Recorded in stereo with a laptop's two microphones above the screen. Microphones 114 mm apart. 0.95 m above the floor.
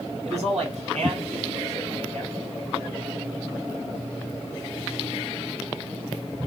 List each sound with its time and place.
0.2 s a man speaking: 70° right (ahead or behind), 2.0 m